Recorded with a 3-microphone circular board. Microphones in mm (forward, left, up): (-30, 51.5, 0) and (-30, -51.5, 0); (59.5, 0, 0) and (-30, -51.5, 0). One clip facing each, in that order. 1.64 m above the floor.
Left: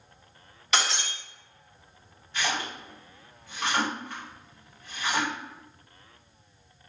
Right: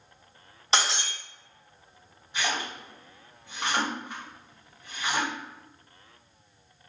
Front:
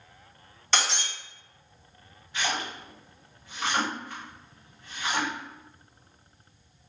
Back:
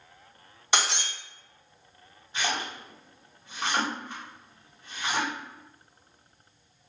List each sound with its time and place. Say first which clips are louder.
0.7 s breaking glass: right 1 dB, back 1 dB; 90° right, 0.9 m
2.3 s a splash: even, even; 135° right, 1.3 m